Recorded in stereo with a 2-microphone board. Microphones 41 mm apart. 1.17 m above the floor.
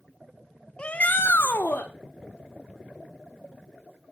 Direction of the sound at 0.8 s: 25° left (ahead or behind).